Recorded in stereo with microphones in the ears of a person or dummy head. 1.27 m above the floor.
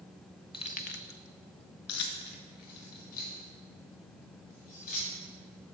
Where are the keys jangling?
25° left (ahead or behind), 0.5 m; by 5.7 s 40° left (ahead or behind), 3.5 m.